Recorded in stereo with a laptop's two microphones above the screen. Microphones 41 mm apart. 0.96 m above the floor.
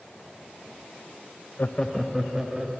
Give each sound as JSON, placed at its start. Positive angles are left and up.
{"t": 1.6, "sound": "laughter", "side_deg": 45, "distance_m": 0.5}